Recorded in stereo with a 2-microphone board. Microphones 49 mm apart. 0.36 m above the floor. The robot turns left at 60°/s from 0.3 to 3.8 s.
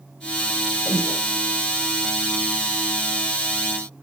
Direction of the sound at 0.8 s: 80° right.